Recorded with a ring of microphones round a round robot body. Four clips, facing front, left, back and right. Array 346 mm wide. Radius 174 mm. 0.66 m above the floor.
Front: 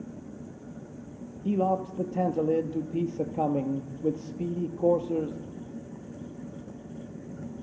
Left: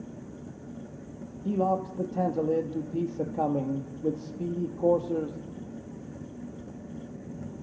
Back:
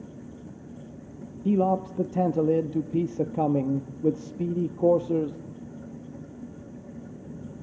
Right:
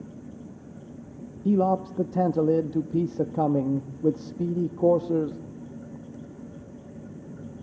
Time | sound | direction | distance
1.4 | a man speaking | 125° right | 0.9 m